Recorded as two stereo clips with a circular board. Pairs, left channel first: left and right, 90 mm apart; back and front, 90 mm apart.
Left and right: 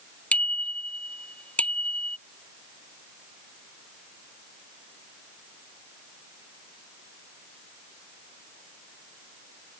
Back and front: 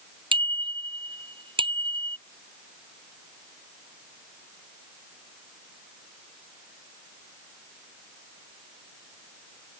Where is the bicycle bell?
15° left.